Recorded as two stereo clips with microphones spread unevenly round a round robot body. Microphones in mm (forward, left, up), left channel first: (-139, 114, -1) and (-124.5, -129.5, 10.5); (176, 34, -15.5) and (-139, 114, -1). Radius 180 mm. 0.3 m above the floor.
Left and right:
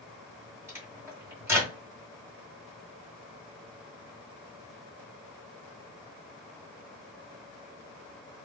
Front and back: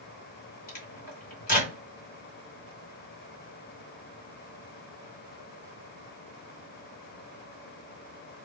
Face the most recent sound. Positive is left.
turn(degrees=-10)